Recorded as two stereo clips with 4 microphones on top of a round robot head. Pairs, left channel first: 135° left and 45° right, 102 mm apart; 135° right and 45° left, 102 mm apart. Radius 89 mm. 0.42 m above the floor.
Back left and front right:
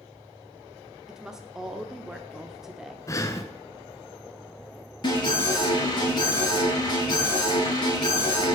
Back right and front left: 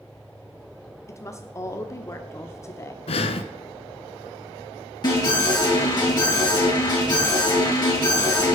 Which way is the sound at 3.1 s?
165° right.